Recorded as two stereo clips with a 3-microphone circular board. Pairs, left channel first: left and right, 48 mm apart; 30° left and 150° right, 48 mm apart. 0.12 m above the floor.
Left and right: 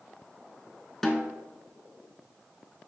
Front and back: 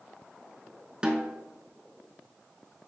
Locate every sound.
1.0 s a snare drum: 160° left, 0.7 m